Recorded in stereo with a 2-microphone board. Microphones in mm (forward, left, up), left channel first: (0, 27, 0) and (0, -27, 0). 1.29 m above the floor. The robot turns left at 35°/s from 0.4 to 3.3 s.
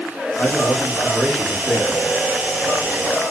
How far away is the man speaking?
About 1.1 m.